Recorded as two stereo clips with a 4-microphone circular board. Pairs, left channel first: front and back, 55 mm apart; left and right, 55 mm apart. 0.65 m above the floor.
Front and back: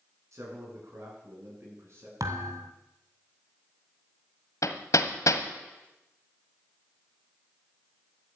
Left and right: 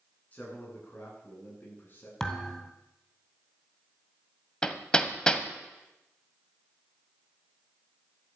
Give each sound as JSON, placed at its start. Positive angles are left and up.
{"t": 0.3, "sound": "a man speaking", "azimuth_deg": 150, "distance_m": 8.0}
{"t": 2.2, "sound": "a thud", "azimuth_deg": 170, "distance_m": 1.8}
{"t": 4.6, "sound": "hammering", "azimuth_deg": 15, "distance_m": 1.5}